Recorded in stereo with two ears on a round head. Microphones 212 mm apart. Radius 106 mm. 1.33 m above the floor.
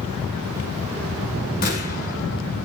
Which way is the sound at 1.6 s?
40° left (ahead or behind).